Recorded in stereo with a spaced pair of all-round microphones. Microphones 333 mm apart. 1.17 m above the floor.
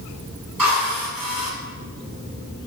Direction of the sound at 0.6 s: 85° right.